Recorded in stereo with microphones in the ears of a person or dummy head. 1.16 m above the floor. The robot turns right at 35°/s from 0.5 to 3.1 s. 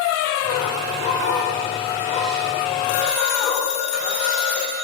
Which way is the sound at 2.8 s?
45° left (ahead or behind).